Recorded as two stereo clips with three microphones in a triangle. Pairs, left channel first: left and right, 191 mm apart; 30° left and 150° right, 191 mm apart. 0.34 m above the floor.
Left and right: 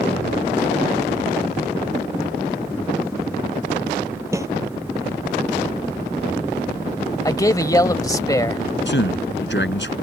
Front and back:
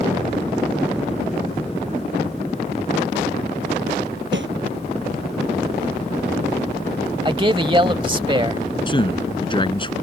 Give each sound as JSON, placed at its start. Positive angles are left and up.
{"t": 4.3, "sound": "a snare drum", "azimuth_deg": -165}
{"t": 7.2, "sound": "a man speaking", "azimuth_deg": 155}
{"t": 8.9, "sound": "a man speaking", "azimuth_deg": 95}